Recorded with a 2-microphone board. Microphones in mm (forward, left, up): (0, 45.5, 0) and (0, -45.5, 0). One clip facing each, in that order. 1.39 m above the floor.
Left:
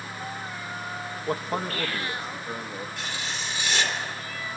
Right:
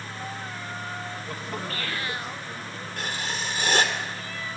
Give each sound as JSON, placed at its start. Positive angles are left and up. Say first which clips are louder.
{"t": 1.3, "sound": "a man speaking", "louder": "left 9 dB", "side_deg": 50, "distance_m": 1.9}
{"t": 3.0, "sound": "writing", "louder": "right 2 dB", "side_deg": -50, "distance_m": 3.0}